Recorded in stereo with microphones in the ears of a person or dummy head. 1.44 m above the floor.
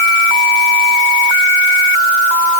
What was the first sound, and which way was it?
Only background noise.